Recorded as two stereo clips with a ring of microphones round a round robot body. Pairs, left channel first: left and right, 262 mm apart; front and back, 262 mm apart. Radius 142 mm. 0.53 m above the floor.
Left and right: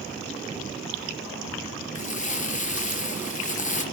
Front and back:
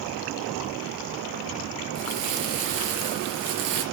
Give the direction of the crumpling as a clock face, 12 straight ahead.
7 o'clock.